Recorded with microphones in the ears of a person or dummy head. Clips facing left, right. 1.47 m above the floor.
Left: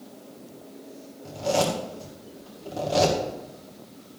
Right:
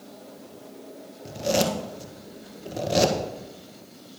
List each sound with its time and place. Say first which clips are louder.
1.2 s a zipper: even; 20° right (ahead or behind), 1.4 m